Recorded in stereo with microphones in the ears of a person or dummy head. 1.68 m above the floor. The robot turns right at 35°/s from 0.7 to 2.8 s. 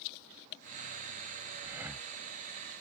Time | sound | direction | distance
1.6 | breathing | 20° right (ahead or behind) | ?